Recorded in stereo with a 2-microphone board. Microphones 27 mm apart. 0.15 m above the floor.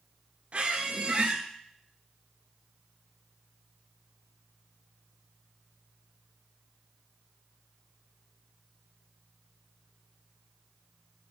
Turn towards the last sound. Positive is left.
turn(degrees=-45)  # may be behind; listen again after turning